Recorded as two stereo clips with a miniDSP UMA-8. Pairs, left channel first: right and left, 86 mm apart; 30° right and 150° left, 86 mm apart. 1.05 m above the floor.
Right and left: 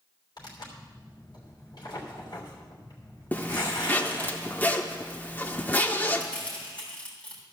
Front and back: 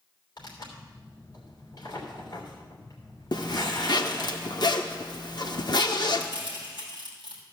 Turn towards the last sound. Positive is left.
turn(degrees=-15)